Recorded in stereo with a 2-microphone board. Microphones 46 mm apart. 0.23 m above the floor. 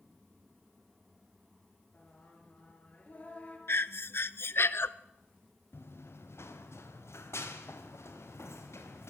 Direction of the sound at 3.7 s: 60° left (ahead or behind).